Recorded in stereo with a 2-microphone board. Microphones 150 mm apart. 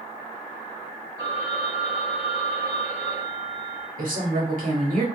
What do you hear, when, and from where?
1.2 s a phone ringing: 25° right (ahead or behind), 1.8 m
4.0 s a woman speaking: 65° right (ahead or behind), 1.5 m